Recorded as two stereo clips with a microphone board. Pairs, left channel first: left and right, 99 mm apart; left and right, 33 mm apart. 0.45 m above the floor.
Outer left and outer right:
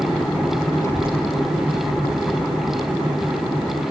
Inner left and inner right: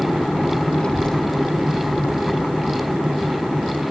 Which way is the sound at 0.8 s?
35° left (ahead or behind).